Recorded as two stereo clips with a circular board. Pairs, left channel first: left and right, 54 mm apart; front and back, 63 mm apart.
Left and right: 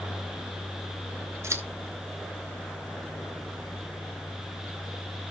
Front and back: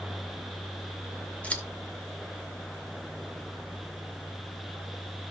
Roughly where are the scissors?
Ahead right.